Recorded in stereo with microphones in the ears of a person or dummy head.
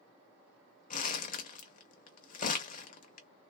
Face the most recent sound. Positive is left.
turn(degrees=40)  # may be behind; listen again after turning